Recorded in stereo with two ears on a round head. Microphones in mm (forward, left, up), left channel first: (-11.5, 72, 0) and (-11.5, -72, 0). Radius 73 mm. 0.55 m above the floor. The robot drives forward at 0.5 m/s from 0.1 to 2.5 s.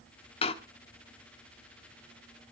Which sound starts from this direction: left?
A door slam, at 0.4 s.